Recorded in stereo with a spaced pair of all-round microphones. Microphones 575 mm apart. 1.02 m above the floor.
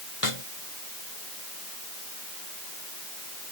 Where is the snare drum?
65° left (ahead or behind).